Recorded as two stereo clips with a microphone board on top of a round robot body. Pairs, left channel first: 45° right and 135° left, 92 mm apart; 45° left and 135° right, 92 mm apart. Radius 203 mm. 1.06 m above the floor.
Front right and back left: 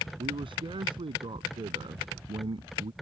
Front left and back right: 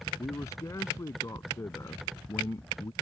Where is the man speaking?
100° left.